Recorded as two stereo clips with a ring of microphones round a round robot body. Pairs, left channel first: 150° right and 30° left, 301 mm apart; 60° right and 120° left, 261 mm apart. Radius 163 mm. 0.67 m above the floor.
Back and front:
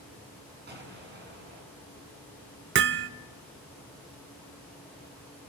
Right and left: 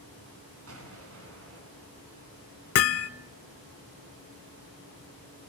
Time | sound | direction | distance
0.7 | an explosion | 90° left | 8 m
2.8 | hammering | 25° right | 1.0 m